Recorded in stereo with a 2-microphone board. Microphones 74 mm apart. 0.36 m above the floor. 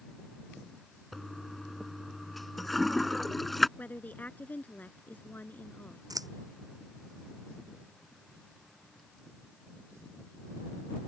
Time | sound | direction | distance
1.1 | a toilet flushing | centre (ahead or behind) | ?
3.8 | a woman speaking | 25° left (ahead or behind) | ?
6.1 | scissors | 65° right (ahead or behind) | ?